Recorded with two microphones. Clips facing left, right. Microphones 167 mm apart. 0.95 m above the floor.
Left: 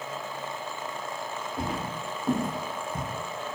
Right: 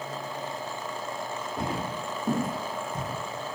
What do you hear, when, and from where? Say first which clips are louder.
1.6 s footsteps: right 1 dB; 25° right (ahead or behind), 1.3 m; by 3.1 s 15° left (ahead or behind), 1.2 m